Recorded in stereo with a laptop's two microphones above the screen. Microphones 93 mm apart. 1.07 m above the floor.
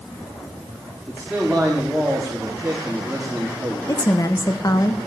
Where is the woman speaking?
40° left (ahead or behind), 1.0 m.